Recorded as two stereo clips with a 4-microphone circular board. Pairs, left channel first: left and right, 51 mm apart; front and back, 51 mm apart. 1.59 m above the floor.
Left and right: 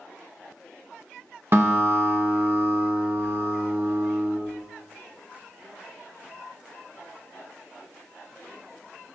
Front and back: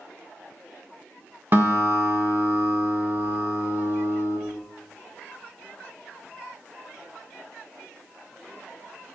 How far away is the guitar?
About 2.5 m.